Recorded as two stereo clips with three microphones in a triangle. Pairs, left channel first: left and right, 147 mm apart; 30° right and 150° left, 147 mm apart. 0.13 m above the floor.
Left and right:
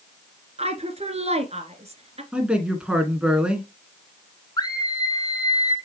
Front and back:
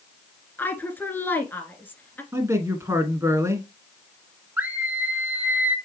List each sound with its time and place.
0.6 s a woman speaking: 105° right, 1.5 m
2.3 s a man speaking: 165° right, 1.5 m
4.6 s a scream: 85° left, 1.6 m